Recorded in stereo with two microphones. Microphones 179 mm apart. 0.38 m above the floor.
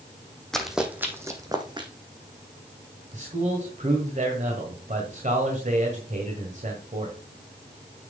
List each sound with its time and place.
0.5 s running footsteps: 5° left (ahead or behind), 1.2 m; by 1.9 s 30° right (ahead or behind), 1.6 m
3.1 s a man speaking: 50° right (ahead or behind), 1.7 m